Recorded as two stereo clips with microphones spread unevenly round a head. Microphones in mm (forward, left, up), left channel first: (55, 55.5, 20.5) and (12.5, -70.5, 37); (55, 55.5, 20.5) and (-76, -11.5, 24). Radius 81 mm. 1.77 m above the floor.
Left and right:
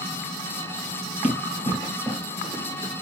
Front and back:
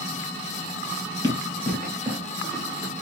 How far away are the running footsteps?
About 1.8 m.